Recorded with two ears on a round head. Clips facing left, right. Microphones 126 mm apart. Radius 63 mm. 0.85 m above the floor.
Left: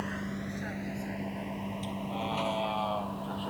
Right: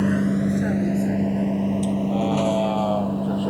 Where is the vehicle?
65° right (ahead or behind); by 3.5 s 55° right (ahead or behind).